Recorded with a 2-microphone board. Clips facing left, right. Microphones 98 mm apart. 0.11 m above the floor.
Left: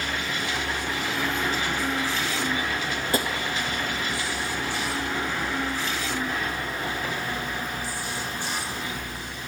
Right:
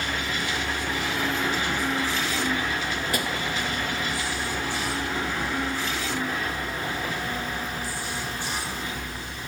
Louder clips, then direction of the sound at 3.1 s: Left 5 dB; 30° left (ahead or behind).